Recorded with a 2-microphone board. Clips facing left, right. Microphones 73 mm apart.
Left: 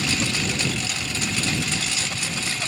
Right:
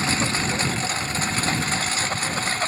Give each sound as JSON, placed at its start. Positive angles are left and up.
{"t": 0.0, "sound": "a lawn mower", "side_deg": -35}